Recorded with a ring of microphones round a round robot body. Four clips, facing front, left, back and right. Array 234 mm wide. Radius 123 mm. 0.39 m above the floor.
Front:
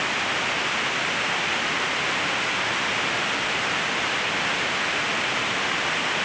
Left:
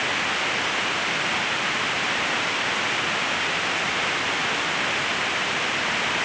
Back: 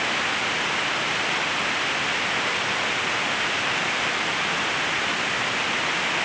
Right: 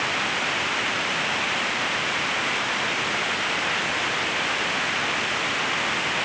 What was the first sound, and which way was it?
Only background noise.